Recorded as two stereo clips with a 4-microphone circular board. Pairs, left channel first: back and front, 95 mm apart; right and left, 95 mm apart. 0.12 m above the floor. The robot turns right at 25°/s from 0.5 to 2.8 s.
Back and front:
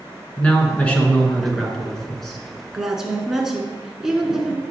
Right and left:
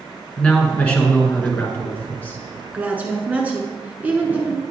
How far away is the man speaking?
About 1.1 m.